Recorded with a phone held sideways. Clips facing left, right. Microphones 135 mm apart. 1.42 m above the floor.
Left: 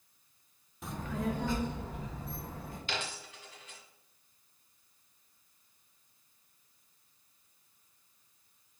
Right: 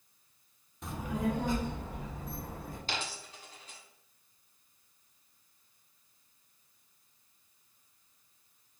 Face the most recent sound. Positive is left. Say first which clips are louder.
# left 1 dB
turn(degrees=-40)  # may be behind; listen again after turning